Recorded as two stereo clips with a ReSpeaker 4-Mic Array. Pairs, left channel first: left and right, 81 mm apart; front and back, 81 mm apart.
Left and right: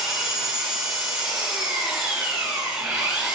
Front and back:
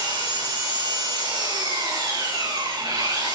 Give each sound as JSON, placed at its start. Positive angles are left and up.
{"t": 0.0, "sound": "an engine running", "azimuth_deg": -175, "distance_m": 5.5}